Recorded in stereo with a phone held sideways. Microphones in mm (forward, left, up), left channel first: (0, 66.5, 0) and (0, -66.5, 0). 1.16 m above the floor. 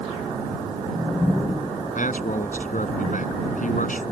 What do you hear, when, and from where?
1.9 s a man speaking: 75° left (ahead or behind)